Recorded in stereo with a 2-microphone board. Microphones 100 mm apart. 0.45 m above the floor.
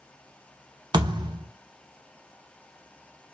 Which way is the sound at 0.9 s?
45° right (ahead or behind).